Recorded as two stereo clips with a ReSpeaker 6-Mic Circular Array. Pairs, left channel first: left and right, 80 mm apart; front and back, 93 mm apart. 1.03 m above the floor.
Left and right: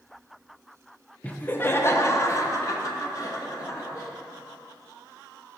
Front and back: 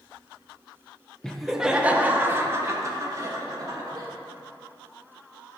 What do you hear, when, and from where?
1.2 s laughter: 65° left, 0.7 m; by 4.1 s 135° left, 1.9 m